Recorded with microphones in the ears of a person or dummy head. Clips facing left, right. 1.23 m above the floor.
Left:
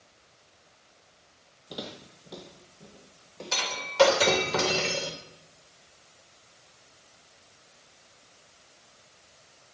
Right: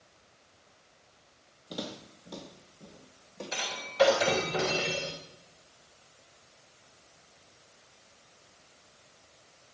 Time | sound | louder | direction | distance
1.7 | footsteps | right 1 dB | 5° left (ahead or behind) | 2.5 m
3.5 | breaking glass | left 8 dB | 85° left | 3 m